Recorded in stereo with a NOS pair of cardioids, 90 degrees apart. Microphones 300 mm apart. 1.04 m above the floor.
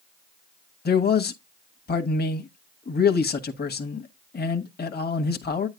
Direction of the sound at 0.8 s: 35° left.